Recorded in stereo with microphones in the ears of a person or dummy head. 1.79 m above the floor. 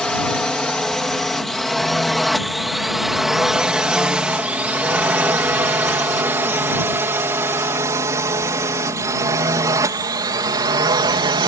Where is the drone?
5° left (ahead or behind); by 11.5 s 20° right (ahead or behind).